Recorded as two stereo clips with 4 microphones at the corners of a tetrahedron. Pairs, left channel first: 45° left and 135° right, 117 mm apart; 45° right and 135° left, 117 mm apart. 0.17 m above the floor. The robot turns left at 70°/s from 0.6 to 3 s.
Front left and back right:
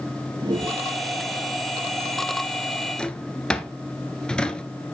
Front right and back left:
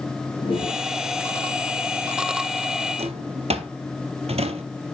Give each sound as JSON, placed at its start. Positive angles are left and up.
{"t": 0.4, "sound": "a whoosh", "azimuth_deg": -85, "distance_m": 5.0}
{"t": 3.0, "sound": "a drawer", "azimuth_deg": 130, "distance_m": 1.0}